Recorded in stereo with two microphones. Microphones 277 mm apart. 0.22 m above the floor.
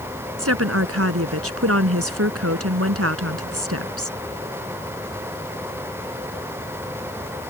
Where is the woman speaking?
60° right (ahead or behind).